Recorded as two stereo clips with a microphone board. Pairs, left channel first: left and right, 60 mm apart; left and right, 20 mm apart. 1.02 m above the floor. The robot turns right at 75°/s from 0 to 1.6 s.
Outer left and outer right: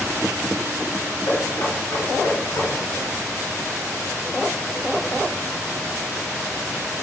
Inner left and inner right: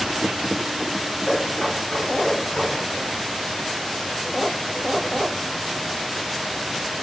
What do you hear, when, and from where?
1.3 s knocking: 75° left (ahead or behind), 7.5 m; by 2.7 s 80° left, 7.5 m